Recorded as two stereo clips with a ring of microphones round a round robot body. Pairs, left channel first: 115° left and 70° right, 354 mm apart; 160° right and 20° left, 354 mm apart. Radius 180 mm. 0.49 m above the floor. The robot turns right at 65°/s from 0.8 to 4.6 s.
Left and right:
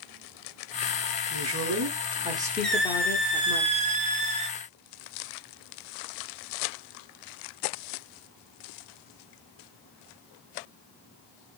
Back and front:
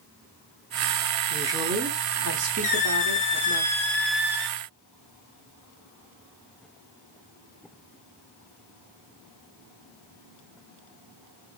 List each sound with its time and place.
1.3 s a woman speaking: 65° right, 0.9 m; by 3.6 s 85° left, 0.9 m
2.6 s a squeak: 165° right, 0.5 m; by 4.6 s 40° right, 0.5 m